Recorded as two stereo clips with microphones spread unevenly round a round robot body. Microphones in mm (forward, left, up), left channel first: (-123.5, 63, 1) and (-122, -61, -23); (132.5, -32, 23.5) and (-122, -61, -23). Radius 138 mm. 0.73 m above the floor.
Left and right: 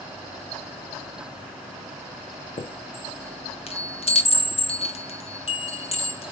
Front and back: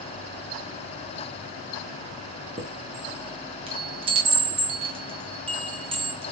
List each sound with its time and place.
2.6 s a chime: 130° left, 1.1 m